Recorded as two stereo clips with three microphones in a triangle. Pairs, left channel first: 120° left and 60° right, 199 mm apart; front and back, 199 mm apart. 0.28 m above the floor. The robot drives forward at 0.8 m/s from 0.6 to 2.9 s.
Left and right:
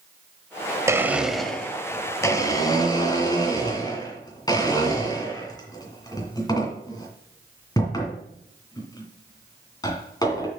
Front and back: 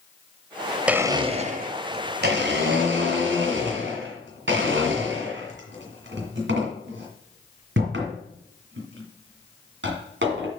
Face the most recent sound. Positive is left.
turn(degrees=-170)